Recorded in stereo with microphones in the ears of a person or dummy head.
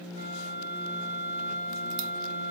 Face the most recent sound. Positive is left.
turn(degrees=-50)  # may be behind; listen again after turning